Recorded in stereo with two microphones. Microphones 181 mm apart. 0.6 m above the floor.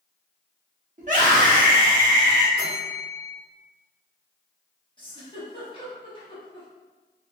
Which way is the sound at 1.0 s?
45° right (ahead or behind).